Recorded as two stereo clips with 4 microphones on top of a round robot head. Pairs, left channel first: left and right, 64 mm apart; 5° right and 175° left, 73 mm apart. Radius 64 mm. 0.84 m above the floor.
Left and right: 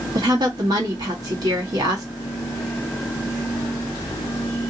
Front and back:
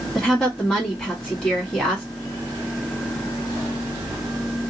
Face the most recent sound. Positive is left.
turn(degrees=-85)